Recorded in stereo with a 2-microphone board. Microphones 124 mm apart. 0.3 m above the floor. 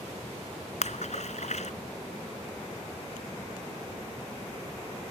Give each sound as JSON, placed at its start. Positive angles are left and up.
{"t": 0.8, "sound": "a splash", "side_deg": 70}